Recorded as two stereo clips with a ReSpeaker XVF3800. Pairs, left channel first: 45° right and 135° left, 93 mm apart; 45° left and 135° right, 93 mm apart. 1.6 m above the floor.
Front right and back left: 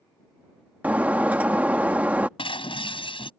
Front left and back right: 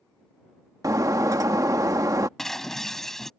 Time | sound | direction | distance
0.8 | breaking glass | 160° right | ?
2.4 | breaking glass | 40° right | ?